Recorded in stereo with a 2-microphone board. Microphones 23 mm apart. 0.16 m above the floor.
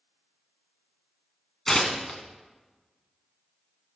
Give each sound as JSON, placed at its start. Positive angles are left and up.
{"t": 1.7, "sound": "tearing paper", "side_deg": 15, "distance_m": 1.2}